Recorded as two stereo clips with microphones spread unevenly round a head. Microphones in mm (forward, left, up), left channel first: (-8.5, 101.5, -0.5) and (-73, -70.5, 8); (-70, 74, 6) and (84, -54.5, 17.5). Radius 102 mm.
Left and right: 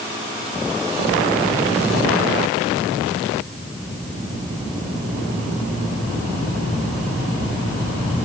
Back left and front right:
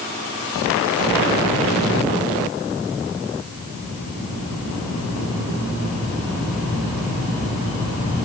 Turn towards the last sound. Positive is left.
No sound to turn to.